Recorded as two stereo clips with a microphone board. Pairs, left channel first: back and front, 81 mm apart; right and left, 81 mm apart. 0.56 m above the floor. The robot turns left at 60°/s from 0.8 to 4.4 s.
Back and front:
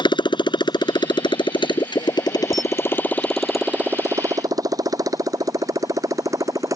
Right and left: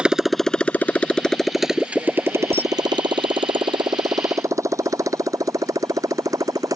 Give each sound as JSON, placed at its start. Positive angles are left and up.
{"t": 0.0, "sound": "a motorcycle", "azimuth_deg": 170}
{"t": 2.5, "sound": "a camera shutter", "azimuth_deg": 30}